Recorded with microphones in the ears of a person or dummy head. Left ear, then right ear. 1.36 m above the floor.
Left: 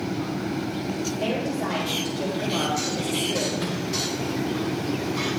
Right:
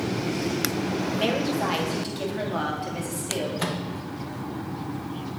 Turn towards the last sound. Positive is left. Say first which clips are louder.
# even
turn(degrees=-30)  # may be behind; listen again after turning